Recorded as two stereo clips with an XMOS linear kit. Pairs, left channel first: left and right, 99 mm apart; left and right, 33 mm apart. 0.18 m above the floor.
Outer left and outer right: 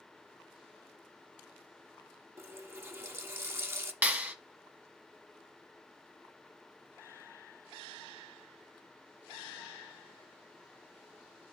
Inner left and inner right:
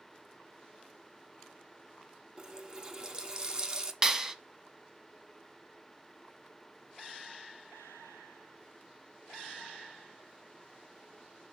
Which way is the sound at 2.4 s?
25° right (ahead or behind).